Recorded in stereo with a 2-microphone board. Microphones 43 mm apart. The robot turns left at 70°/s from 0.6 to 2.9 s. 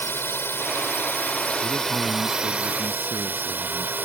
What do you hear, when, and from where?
0.0 s a drone: 105° left; by 4.1 s 55° right
1.6 s a man speaking: 75° left; by 4.0 s 20° right